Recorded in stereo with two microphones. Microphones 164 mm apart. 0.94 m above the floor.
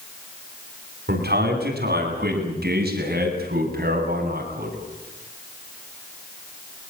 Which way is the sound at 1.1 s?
85° right.